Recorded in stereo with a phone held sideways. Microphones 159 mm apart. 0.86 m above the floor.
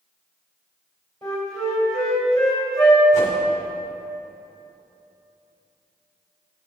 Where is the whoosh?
20° left (ahead or behind), 2.0 m.